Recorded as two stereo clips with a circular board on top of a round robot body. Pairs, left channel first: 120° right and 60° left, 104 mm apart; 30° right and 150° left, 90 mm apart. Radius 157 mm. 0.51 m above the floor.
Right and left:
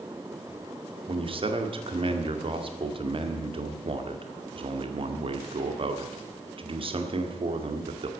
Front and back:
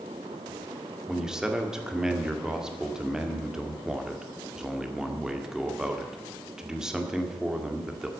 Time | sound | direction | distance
1.1 | a man speaking | 65° left | 2 m